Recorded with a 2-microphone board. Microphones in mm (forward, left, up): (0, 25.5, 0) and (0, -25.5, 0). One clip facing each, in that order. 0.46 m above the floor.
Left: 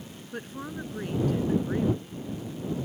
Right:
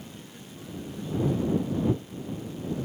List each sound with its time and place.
0.3 s a woman speaking: 60° left (ahead or behind); by 2.3 s 70° left (ahead or behind)